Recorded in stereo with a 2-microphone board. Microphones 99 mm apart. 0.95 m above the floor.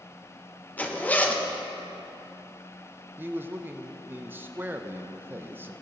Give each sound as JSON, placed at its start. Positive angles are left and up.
{"t": 0.8, "sound": "a zipper", "side_deg": 15, "distance_m": 0.8}
{"t": 3.2, "sound": "a man speaking", "side_deg": -20, "distance_m": 0.6}